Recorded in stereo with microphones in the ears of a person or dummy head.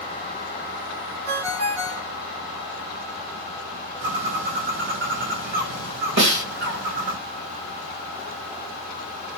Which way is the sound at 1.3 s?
70° right (ahead or behind).